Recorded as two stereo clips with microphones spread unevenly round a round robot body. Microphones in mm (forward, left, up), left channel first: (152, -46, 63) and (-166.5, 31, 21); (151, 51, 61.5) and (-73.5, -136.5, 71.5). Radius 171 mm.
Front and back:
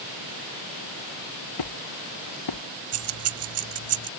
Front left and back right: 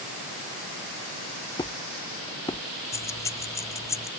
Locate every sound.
1.6 s a squeak: 35° right
2.9 s keys jangling: 120° left